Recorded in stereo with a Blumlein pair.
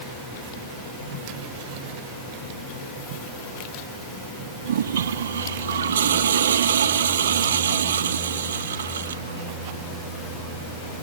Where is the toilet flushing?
65° right.